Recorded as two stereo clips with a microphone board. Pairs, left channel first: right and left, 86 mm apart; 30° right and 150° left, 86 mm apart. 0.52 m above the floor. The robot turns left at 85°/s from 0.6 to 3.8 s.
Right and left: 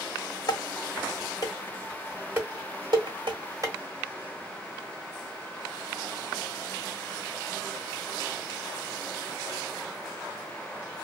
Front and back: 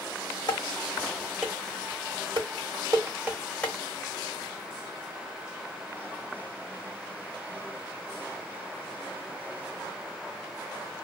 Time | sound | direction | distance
0.5 | dishes clattering | 55° right | 1.5 m